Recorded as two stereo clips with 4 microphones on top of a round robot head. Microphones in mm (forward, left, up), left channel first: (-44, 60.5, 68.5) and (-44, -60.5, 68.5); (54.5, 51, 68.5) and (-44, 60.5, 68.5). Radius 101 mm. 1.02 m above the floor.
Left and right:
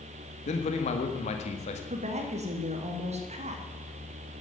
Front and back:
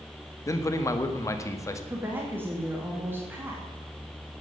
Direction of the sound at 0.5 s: 55° left.